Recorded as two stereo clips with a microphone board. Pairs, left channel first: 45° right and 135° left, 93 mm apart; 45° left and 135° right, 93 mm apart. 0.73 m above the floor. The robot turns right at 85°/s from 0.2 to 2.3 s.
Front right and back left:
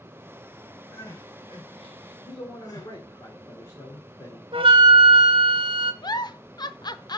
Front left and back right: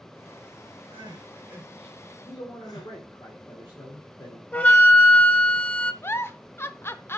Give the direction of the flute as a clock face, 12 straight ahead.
8 o'clock.